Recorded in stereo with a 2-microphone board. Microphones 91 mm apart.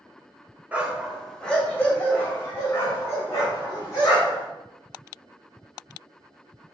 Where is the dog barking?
15° right (ahead or behind), 0.9 m; by 4.5 s 40° left (ahead or behind), 3 m.